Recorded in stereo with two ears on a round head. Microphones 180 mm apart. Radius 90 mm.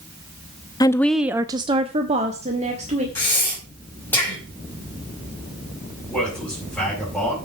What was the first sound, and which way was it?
A woman speaking, 20° left (ahead or behind).